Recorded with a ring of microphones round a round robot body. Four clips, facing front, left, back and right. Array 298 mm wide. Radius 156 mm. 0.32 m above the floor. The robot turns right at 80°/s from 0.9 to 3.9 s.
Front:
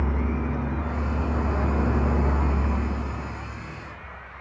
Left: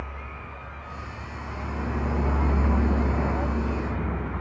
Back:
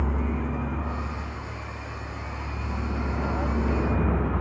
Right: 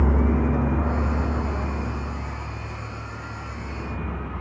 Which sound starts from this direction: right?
A vehicle, at 0.0 s.